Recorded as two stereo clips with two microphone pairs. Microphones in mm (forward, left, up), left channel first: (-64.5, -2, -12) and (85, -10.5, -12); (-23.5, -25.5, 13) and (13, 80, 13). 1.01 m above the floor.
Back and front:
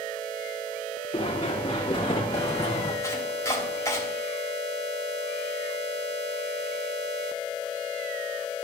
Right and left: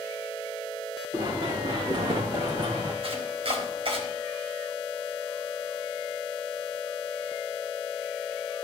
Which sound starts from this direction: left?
Chopping, at 3.0 s.